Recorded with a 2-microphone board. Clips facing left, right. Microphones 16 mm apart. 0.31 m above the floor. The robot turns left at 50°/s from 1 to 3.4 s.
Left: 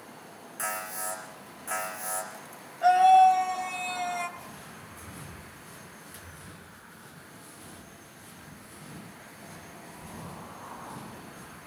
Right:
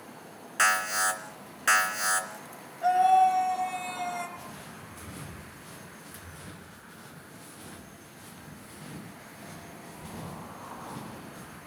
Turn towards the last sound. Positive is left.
turn(degrees=-70)  # may be behind; listen again after turning